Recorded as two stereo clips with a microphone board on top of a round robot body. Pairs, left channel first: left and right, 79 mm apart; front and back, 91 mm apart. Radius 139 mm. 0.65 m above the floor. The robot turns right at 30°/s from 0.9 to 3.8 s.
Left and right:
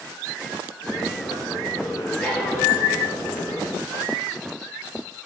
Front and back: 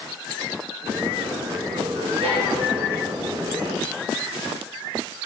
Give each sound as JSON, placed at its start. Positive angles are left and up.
{"t": 2.2, "sound": "a violin", "azimuth_deg": 160, "distance_m": 3.5}